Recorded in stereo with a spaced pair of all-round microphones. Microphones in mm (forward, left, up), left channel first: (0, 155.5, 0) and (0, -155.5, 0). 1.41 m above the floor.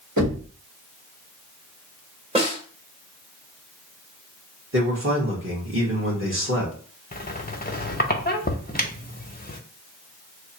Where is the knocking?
70° right (ahead or behind), 1.5 m.